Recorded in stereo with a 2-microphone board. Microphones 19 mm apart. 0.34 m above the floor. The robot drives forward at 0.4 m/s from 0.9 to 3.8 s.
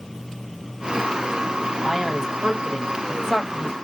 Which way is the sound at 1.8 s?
25° right (ahead or behind).